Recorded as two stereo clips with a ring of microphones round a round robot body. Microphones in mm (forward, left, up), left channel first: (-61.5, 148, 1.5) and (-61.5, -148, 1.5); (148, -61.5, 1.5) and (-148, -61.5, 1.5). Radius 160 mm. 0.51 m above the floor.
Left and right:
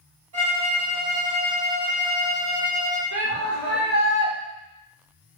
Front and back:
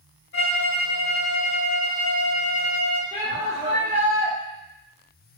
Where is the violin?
55° right, 1.5 m.